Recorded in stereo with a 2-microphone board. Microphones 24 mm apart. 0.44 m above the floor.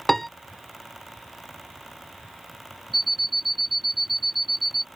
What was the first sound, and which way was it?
A piano, 10° left (ahead or behind).